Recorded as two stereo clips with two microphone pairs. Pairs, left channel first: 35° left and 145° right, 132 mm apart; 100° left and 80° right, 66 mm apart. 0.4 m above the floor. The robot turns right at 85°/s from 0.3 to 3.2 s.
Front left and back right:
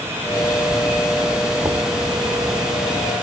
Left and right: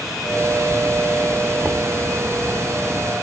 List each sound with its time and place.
1.6 s knocking: 120° right, 0.6 m; by 1.9 s 95° right, 0.6 m